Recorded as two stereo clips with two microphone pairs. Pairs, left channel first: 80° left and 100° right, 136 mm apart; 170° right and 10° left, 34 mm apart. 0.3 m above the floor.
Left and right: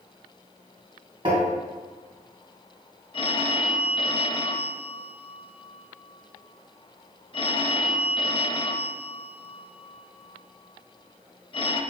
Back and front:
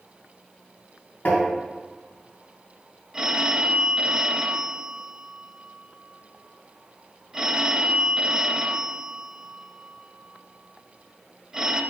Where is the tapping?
140° right, 2.5 m.